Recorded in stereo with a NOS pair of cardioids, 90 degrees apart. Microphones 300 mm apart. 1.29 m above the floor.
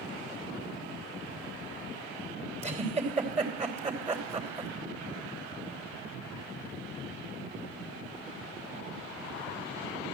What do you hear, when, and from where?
2.6 s a giggle: 20° right, 3.5 m